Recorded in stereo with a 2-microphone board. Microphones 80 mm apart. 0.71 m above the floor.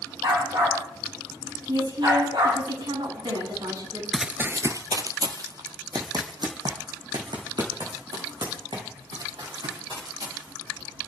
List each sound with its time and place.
0.2 s a dog barking: 60° right (ahead or behind), 8.5 m; by 2.6 s 70° right (ahead or behind), 8.5 m
1.7 s a woman speaking: 65° right (ahead or behind), 7.5 m
4.1 s running footsteps: 5° right (ahead or behind), 0.6 m; by 10.5 s 65° right (ahead or behind), 6.5 m